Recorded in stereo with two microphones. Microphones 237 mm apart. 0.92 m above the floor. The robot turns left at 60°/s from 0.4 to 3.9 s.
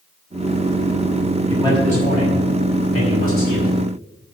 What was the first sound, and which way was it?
A man speaking, 175° left.